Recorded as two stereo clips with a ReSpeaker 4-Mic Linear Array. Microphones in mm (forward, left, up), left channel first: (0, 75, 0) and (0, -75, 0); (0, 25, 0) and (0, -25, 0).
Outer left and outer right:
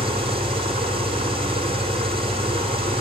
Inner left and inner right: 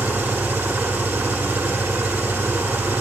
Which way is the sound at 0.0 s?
35° right (ahead or behind).